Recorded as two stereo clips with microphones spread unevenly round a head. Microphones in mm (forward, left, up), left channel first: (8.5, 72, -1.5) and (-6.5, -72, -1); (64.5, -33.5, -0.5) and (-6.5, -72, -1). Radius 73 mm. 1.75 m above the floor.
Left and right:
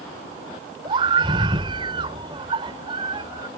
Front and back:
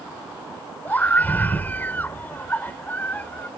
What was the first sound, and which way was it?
A scream, 40° right.